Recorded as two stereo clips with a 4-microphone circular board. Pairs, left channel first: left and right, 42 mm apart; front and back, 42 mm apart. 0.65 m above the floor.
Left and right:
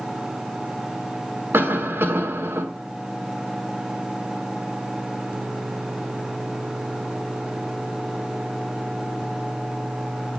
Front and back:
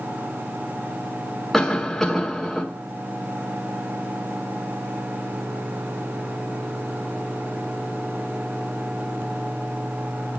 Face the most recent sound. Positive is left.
turn(degrees=-85)